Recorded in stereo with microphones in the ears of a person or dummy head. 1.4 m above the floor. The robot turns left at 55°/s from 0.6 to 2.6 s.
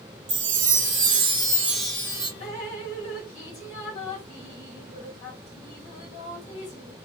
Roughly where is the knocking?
I don't hear knocking.